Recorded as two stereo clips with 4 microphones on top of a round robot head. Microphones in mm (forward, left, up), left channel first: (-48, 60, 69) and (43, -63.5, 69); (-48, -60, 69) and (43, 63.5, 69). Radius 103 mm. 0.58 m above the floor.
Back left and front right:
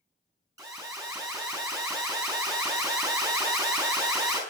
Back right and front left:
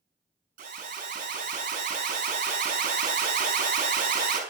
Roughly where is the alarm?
Ahead.